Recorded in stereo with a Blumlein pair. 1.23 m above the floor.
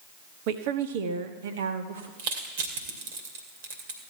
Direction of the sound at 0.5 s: 45° right.